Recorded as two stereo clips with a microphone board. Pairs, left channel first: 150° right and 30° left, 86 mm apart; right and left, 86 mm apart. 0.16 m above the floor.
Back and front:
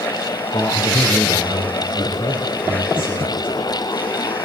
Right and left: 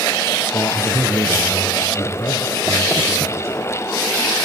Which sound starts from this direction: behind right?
A man speaking, at 0.5 s.